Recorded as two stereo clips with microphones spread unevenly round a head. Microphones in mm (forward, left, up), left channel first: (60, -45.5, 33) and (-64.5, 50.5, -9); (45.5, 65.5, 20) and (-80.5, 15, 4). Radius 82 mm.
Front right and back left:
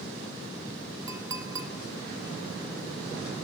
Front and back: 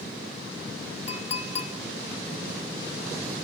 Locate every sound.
1.1 s a clink: 70° left, 0.8 m